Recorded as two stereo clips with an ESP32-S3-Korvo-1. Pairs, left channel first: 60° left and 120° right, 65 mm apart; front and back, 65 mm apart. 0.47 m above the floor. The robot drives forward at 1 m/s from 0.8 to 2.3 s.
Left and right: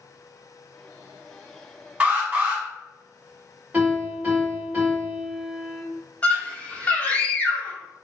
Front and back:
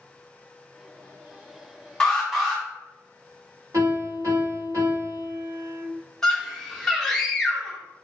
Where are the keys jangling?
No keys jangling in this recording.